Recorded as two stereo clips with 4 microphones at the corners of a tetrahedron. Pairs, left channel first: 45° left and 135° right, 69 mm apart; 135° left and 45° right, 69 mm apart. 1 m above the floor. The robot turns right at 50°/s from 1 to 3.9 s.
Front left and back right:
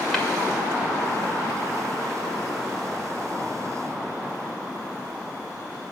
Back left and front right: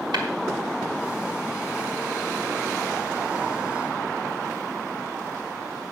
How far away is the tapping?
About 1.9 m.